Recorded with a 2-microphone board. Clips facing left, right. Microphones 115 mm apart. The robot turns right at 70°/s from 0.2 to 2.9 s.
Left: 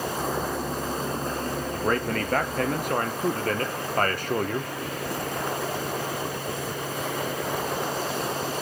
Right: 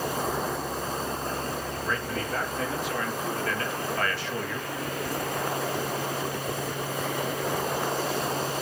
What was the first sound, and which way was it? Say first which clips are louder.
A man speaking: left 5 dB; 45° left.